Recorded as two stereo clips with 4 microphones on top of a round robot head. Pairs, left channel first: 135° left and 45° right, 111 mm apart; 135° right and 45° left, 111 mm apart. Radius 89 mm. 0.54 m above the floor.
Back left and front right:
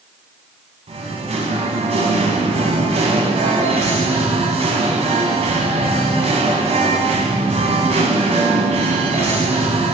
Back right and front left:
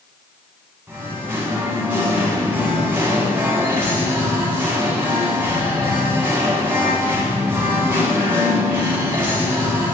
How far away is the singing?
About 0.9 m.